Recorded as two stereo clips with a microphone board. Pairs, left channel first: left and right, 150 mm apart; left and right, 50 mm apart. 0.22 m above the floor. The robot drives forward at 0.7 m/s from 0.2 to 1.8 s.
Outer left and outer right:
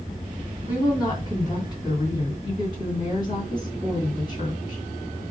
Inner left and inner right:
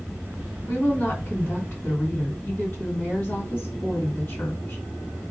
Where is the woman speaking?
25° left (ahead or behind), 2.5 m; by 4.8 s 30° left (ahead or behind), 2 m.